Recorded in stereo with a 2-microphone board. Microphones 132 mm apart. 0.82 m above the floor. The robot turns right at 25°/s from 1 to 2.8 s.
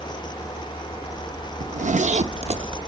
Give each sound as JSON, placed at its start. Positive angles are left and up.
{"t": 1.6, "sound": "a zipper", "side_deg": -75, "distance_m": 0.7}